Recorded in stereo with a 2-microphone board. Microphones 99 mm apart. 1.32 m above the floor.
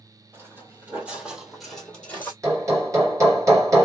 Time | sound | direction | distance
0.3 | footsteps | 25° right (ahead or behind) | 1.7 m
2.4 | hammering | 30° right (ahead or behind) | 1.5 m